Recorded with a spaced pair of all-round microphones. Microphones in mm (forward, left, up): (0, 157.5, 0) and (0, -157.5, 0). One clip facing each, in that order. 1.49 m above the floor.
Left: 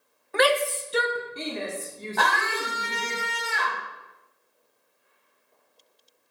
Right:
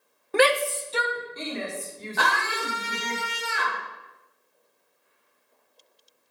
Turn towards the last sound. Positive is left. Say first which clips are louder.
# left 1 dB
turn(degrees=-5)  # may be behind; listen again after turning